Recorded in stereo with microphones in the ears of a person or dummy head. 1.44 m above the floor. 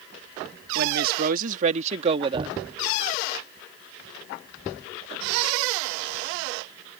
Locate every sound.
0.8 s a woman speaking: 60° right (ahead or behind); by 2.5 s 25° right (ahead or behind)
2.3 s knocking: 30° right (ahead or behind)